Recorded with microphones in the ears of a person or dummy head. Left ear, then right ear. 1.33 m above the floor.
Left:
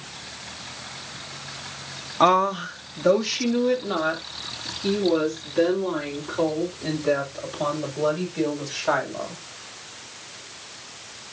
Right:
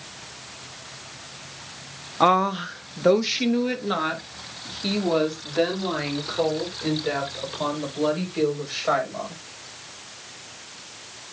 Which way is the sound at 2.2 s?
10° left (ahead or behind).